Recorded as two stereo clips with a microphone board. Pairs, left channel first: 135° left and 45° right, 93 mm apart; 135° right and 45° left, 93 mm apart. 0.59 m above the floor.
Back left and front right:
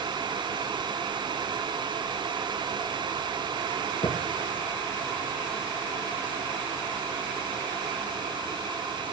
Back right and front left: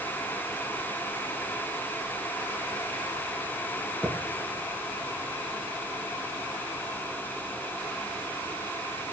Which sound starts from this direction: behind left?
A thud, at 4.0 s.